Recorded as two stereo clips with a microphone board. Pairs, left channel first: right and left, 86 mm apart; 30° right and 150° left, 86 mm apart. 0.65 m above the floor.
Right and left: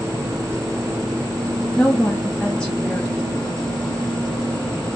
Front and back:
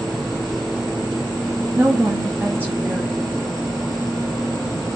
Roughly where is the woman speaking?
Behind.